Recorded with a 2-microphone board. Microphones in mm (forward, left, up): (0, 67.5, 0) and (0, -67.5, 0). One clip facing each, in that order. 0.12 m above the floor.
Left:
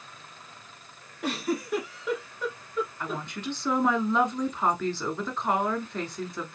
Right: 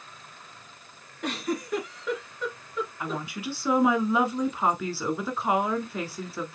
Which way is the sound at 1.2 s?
5° left (ahead or behind).